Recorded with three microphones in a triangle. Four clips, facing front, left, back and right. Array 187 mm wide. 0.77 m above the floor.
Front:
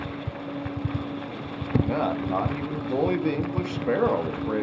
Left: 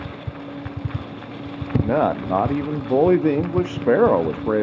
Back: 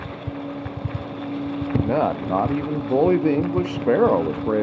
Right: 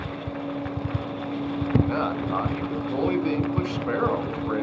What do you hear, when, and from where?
1.8 s a man speaking: 125° left, 0.7 m